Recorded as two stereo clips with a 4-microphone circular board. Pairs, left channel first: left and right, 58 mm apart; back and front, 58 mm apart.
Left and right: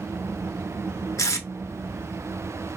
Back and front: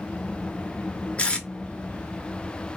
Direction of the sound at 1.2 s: 110° left.